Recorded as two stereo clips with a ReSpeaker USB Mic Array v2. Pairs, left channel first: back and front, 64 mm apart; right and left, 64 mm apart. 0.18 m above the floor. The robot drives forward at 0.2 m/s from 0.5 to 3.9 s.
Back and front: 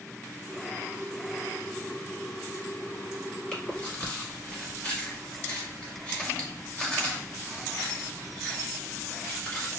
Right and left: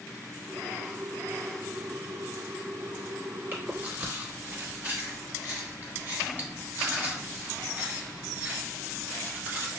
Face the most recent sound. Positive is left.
turn(degrees=125)